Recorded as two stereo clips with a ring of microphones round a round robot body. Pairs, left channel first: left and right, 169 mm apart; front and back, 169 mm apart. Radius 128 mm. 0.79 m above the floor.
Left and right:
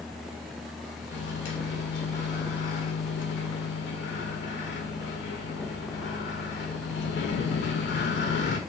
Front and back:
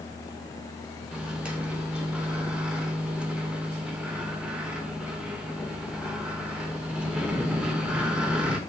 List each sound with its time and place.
1.1 s a microwave: 95° left, 0.6 m